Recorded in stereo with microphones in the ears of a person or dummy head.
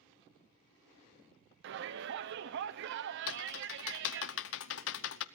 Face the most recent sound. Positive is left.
turn(degrees=75)  # may be behind; listen again after turning